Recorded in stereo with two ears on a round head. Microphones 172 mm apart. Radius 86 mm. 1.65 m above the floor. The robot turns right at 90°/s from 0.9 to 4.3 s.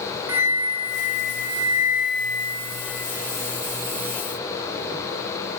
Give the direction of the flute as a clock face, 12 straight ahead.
6 o'clock.